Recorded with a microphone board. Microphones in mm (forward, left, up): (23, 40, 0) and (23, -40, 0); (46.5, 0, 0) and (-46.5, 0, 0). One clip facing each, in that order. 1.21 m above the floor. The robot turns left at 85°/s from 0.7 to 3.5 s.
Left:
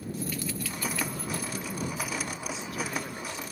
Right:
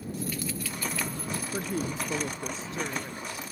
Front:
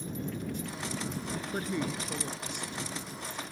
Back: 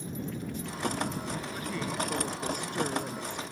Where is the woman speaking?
50° right; by 3.4 s 150° left.